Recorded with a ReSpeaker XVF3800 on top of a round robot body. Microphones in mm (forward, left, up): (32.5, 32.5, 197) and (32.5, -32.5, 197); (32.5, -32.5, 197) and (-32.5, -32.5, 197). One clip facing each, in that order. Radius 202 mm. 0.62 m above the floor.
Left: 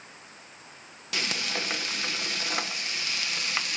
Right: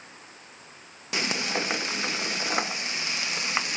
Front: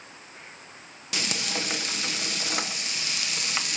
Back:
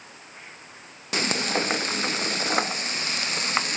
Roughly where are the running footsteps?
No running footsteps in this recording.